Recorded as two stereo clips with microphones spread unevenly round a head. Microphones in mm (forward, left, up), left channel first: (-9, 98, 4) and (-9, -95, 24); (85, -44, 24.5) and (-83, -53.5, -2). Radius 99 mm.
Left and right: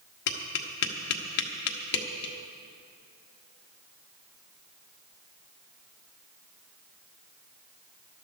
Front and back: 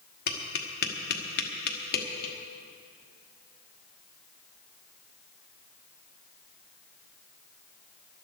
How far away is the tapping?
About 1.2 m.